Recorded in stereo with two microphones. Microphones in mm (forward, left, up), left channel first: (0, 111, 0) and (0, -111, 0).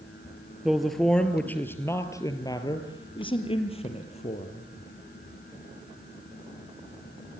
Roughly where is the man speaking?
Centre.